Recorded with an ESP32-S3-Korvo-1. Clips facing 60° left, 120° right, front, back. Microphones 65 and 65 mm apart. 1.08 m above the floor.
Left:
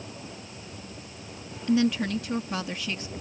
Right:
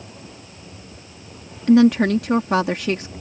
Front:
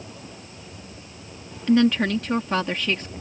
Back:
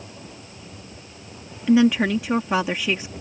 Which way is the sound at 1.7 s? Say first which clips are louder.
Right 10 dB, back 2 dB; 100° right.